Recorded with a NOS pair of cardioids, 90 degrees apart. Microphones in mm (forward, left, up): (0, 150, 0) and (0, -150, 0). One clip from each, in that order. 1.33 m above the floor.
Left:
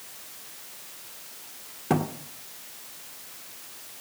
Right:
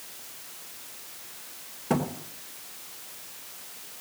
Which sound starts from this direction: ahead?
A thud, at 1.9 s.